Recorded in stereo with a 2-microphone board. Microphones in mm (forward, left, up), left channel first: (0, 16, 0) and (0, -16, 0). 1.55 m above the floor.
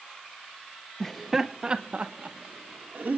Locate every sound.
1.0 s laughter: 15° left (ahead or behind), 0.8 m; by 3.2 s 55° right (ahead or behind), 1.9 m